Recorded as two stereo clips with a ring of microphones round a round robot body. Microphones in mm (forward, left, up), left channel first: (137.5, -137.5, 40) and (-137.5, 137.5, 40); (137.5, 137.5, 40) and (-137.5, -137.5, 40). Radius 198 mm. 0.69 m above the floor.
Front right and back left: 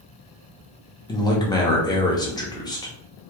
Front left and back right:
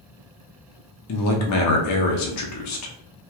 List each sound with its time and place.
1.1 s a man speaking: 30° left, 0.7 m